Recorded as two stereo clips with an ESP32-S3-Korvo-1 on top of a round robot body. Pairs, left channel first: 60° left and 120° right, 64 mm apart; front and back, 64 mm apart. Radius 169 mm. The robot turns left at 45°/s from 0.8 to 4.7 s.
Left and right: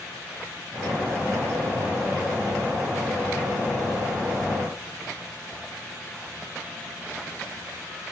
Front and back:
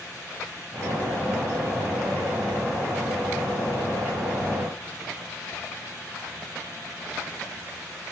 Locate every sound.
Only background noise.